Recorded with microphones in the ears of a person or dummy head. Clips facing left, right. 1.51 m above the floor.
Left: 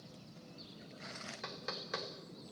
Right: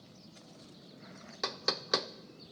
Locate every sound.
1.4 s knocking: 70° right (ahead or behind), 0.5 m